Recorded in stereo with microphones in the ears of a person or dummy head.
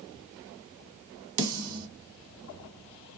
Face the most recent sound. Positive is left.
turn(degrees=-85)